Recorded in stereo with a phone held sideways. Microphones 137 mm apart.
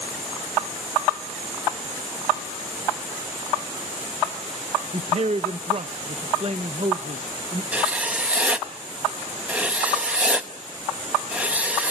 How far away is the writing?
About 1.1 m.